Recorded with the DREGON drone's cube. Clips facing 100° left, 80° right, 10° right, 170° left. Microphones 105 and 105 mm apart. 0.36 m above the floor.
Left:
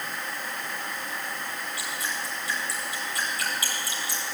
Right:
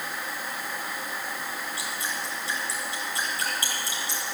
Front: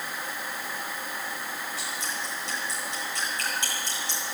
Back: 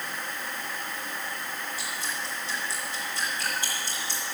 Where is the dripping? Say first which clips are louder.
Even, even; 20° right, 7.5 m.